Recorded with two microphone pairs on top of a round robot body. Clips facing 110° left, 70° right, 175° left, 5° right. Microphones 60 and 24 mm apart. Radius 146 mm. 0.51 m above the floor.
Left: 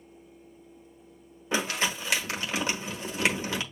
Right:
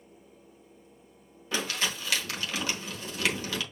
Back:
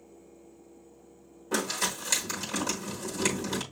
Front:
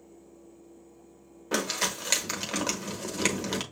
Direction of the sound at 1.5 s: 40° left.